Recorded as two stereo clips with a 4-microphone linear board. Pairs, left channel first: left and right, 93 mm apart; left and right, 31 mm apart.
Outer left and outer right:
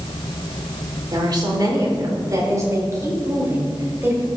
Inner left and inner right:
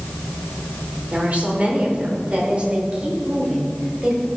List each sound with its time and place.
1.1 s a woman speaking: 50° right (ahead or behind), 3 m; by 4.3 s 20° right (ahead or behind), 4.5 m